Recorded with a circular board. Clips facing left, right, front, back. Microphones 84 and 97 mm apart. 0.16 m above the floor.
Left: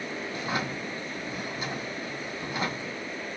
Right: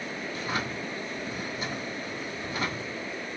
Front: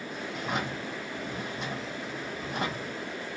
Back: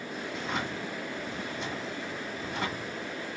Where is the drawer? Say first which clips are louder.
Left 1 dB, front 2 dB; 25° left, 1.5 m.